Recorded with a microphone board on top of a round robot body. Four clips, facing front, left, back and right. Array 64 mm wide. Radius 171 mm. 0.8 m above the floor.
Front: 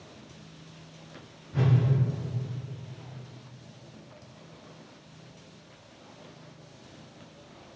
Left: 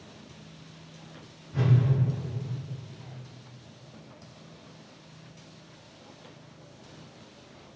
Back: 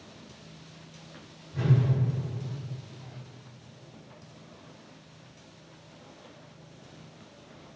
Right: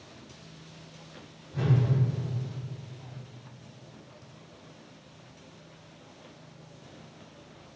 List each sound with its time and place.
1.5 s a whoosh: 30° left, 0.8 m